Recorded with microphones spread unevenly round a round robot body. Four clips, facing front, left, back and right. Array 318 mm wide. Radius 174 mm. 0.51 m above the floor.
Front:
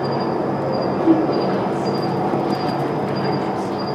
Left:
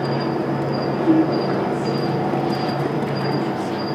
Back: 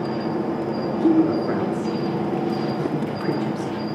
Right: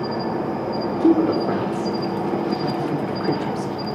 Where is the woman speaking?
115° right, 1.9 m.